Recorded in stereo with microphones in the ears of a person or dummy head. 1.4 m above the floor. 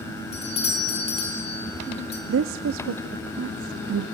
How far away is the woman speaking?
About 0.6 m.